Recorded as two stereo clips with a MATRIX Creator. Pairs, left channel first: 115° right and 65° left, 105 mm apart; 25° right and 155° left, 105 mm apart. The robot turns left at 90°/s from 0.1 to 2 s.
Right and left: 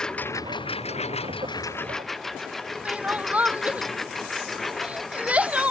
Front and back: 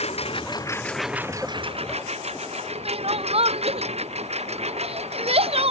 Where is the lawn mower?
30° right; by 5.7 s 160° left.